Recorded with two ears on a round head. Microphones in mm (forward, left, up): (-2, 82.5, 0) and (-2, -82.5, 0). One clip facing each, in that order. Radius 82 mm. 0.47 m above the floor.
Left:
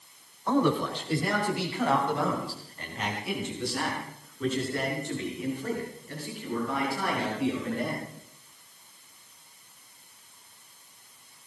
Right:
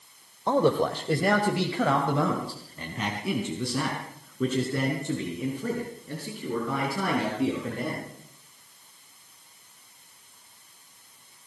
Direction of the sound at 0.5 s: 20° right (ahead or behind).